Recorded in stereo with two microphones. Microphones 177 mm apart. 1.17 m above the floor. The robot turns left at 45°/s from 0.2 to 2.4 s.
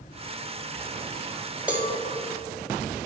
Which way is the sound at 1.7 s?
10° right (ahead or behind).